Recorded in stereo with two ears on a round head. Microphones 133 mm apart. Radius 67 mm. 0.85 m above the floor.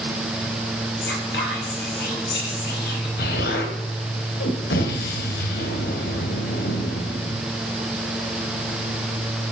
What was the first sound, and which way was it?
Whispering, 75° left (ahead or behind).